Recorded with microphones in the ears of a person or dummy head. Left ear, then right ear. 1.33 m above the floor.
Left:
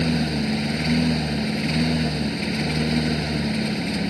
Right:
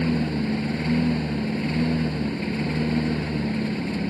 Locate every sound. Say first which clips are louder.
0.0 s a lawn mower: left 2 dB; 30° left (ahead or behind)